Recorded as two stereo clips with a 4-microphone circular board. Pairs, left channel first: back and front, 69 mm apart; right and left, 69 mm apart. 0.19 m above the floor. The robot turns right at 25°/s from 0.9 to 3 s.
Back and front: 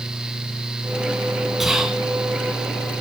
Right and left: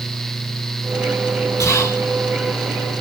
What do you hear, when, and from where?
1.6 s whispering: 85° right, 1.6 m; by 2.0 s 75° right, 1.6 m